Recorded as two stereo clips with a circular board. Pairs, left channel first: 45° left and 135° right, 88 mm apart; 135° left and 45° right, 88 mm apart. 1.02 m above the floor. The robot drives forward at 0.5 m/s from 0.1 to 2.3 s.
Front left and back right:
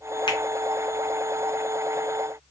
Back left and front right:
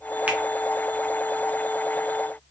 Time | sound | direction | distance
0.3 | a finger snap | 25° left | 0.8 m